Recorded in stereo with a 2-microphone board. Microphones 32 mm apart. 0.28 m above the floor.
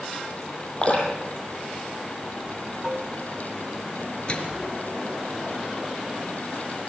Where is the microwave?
35° left (ahead or behind), 3.5 m.